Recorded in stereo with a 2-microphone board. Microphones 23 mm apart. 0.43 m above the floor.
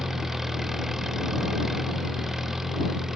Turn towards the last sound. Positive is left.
turn(degrees=-20)  # may be behind; listen again after turning